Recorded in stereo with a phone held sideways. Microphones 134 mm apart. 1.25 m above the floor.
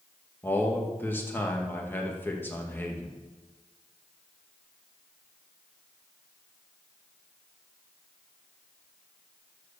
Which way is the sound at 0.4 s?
15° left (ahead or behind).